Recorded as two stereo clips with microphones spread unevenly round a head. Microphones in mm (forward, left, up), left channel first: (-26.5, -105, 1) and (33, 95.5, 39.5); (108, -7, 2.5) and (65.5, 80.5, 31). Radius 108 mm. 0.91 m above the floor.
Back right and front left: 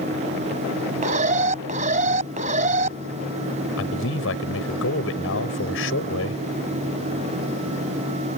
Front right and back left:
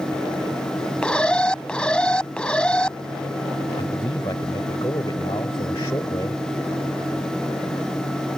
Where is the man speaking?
135° right.